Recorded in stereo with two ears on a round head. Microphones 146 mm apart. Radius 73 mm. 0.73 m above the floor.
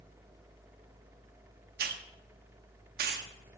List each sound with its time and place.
1.8 s a hiss: 60° right (ahead or behind), 0.9 m